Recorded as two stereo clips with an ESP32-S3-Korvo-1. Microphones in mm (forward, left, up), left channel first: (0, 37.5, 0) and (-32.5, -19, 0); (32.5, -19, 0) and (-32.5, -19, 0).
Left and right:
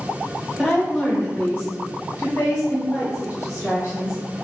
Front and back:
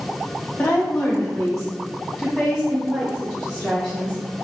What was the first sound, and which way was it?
A woman speaking, 35° right.